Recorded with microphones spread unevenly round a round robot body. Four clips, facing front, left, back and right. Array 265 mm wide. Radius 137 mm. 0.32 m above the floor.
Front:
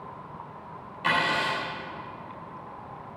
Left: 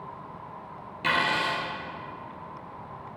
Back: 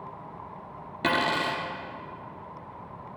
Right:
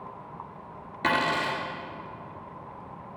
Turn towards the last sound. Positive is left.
turn(degrees=-170)